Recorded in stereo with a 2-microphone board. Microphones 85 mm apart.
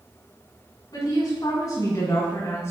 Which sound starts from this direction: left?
A woman speaking, at 0.9 s.